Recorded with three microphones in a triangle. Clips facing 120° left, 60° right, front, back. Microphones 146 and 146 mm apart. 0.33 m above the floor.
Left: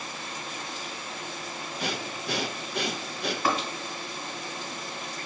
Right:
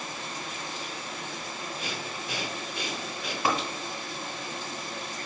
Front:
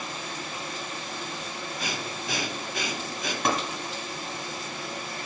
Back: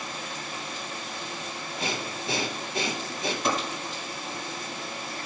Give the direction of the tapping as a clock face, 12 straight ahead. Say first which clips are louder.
Even, front 1 dB; 12 o'clock.